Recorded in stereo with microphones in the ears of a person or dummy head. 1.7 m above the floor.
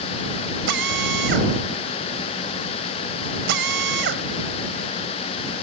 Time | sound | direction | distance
0.7 | a drill | 75° right (ahead or behind) | ?